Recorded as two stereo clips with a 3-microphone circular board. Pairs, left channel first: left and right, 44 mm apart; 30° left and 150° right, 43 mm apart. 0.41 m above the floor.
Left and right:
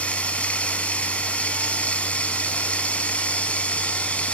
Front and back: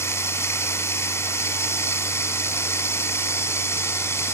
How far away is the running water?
About 0.9 m.